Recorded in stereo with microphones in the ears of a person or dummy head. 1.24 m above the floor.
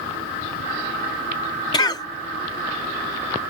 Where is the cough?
25° left (ahead or behind).